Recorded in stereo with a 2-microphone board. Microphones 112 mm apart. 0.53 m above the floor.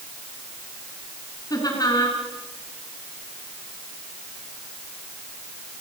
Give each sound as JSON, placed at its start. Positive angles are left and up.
{"t": 1.5, "sound": "laughter", "side_deg": 35, "distance_m": 7.5}